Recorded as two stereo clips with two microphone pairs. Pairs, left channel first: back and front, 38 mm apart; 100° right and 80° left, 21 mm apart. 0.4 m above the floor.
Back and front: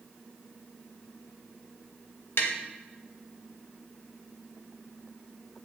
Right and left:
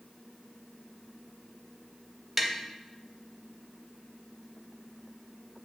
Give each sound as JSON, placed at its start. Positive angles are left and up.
{"t": 2.4, "sound": "tapping", "azimuth_deg": 160, "distance_m": 0.6}